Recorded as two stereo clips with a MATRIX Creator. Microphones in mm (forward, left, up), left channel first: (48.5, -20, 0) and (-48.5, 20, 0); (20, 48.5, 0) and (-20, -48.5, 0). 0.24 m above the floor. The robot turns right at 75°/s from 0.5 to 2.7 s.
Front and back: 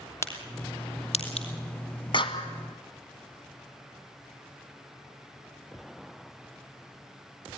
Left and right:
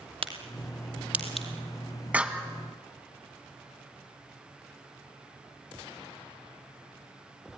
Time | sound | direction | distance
0.2 | a crack | 85° right | 2.5 m
2.1 | a clap | 40° right | 1.8 m